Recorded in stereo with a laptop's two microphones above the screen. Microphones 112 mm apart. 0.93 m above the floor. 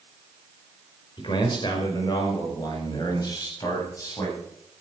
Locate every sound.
1.2 s a man speaking: 45° left (ahead or behind), 4 m; by 4.4 s 30° left (ahead or behind), 7.5 m